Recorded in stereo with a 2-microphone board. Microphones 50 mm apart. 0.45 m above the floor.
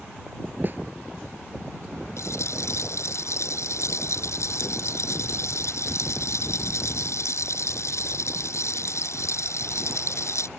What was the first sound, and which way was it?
A snare drum, 40° right (ahead or behind).